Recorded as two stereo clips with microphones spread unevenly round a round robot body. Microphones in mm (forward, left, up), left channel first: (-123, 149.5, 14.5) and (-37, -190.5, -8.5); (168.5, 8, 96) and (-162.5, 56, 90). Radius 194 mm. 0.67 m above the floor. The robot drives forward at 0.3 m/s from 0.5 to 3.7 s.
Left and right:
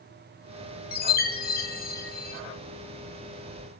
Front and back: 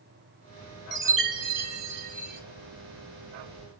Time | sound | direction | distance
0.9 | a chime | 155° left | 0.6 m